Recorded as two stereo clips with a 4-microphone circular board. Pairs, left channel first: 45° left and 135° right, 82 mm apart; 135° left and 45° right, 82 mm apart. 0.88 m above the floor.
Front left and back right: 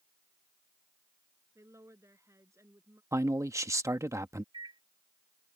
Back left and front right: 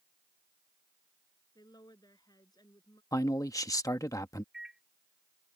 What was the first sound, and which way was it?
A woman speaking, 170° left.